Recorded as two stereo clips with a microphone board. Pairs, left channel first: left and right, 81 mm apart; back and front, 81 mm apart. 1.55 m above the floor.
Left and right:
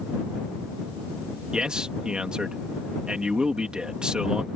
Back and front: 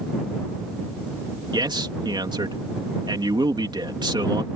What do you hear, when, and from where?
1.5 s a man speaking: 10° right